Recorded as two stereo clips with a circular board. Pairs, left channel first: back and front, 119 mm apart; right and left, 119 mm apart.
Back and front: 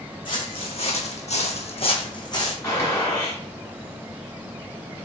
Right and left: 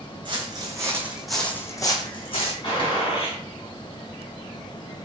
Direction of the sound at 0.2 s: 135° left.